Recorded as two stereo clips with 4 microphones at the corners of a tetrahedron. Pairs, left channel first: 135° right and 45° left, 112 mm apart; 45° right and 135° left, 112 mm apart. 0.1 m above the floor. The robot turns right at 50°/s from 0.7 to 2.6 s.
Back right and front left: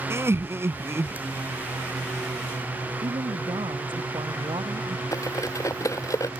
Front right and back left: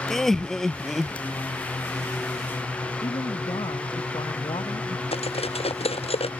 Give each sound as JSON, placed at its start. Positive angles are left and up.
{"t": 0.1, "sound": "laughter", "azimuth_deg": 40}
{"t": 3.0, "sound": "a woman speaking", "azimuth_deg": 0}
{"t": 5.1, "sound": "cutlery clinking", "azimuth_deg": -75}